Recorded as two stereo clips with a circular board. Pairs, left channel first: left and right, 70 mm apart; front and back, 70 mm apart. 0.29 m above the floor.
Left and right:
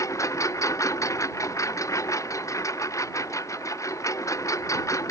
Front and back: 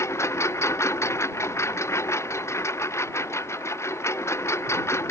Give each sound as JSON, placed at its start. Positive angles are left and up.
{"t": 0.0, "sound": "a lawn mower", "azimuth_deg": 50}